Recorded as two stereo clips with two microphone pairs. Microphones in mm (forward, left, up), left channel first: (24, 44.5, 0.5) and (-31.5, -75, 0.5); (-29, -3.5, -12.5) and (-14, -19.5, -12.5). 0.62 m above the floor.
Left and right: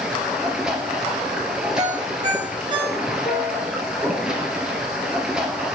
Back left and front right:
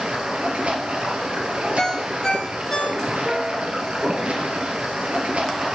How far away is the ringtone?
About 3.5 m.